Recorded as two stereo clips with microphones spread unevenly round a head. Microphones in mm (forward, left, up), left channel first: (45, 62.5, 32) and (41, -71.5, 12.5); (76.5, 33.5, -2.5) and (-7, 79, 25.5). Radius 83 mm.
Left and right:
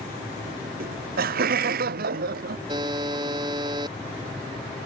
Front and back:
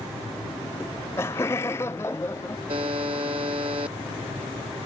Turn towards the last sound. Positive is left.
turn(degrees=-160)